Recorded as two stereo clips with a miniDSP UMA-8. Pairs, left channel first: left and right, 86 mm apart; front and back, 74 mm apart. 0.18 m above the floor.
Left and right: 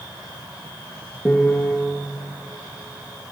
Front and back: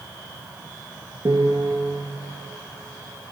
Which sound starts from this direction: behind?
A piano, at 1.2 s.